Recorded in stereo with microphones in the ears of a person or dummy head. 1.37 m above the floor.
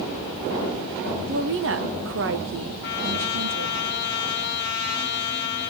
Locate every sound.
1.3 s a woman speaking: 65° right (ahead or behind), 1.2 m
2.8 s a trumpet: 60° left (ahead or behind), 1.8 m